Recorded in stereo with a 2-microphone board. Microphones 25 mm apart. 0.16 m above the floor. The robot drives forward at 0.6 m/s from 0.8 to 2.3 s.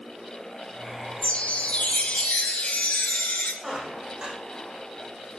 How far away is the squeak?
About 4 m.